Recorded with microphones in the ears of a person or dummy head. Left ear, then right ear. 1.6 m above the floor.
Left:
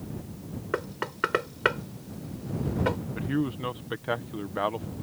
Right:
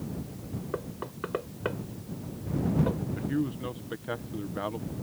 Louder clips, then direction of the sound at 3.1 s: Left 2 dB; 25° left (ahead or behind).